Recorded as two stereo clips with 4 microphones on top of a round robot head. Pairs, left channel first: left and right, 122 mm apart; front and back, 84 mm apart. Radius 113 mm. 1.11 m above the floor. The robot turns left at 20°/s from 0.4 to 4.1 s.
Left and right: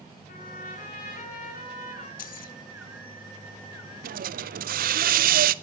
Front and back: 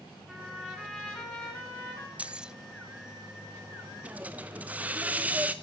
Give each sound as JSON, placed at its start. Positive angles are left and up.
{"t": 0.3, "sound": "a trumpet", "azimuth_deg": 100, "distance_m": 8.5}
{"t": 2.2, "sound": "keys jangling", "azimuth_deg": 105, "distance_m": 0.7}
{"t": 4.0, "sound": "a hiss", "azimuth_deg": -100, "distance_m": 0.5}